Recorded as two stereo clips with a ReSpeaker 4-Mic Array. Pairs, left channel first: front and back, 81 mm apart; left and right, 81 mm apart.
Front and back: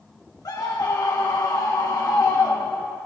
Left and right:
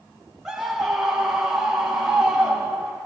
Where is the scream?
10° right, 0.9 m.